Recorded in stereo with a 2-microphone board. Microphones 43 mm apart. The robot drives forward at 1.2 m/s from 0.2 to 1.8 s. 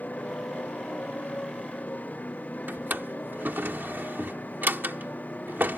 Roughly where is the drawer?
Right.